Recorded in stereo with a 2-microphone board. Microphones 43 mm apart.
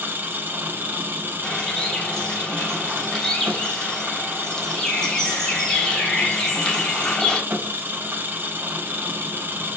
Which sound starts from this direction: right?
An engine running, at 0.0 s.